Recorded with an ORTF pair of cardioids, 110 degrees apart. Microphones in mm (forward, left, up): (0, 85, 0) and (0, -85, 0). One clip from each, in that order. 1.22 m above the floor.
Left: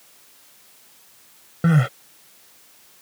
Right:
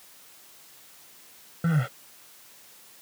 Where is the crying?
45° left.